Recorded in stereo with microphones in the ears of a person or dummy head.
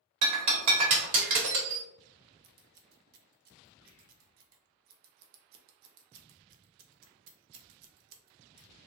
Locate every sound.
0.2 s breaking glass: 45° right (ahead or behind), 1.1 m
2.4 s scissors: 50° right (ahead or behind), 0.5 m